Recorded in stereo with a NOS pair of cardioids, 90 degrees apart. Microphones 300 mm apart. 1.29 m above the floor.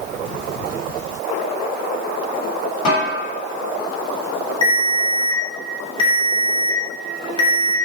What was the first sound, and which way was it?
A snare drum, 70° left.